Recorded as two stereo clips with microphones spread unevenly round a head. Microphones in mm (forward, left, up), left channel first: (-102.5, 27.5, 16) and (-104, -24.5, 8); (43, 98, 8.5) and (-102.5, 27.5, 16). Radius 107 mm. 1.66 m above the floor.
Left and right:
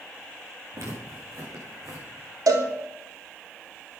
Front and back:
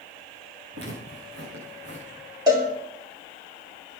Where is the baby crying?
I don't hear a baby crying.